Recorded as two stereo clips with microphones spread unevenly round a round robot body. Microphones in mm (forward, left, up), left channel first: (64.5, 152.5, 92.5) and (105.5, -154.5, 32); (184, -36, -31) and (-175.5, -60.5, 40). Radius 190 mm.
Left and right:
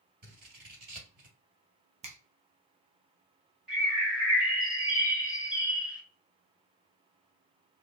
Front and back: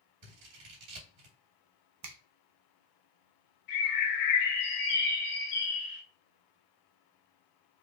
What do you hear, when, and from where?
0.2 s scissors: 145° right, 2.5 m
2.0 s a finger snap: 130° right, 0.9 m
3.7 s a bird: straight ahead, 2 m